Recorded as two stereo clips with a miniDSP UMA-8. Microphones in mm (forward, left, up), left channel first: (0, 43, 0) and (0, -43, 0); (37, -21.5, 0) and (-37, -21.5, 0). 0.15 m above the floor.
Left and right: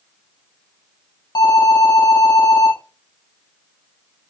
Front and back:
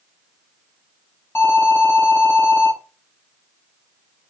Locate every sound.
1.4 s an alarm: 55° left, 5 m